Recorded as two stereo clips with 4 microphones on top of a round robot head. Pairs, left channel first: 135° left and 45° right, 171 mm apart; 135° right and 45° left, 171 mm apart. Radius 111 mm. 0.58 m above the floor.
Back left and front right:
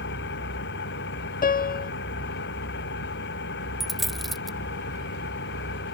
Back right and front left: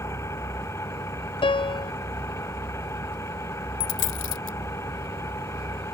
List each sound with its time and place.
0.0 s an engine running: 150° left
1.4 s a piano: 165° left
3.8 s a dropped coin: 135° right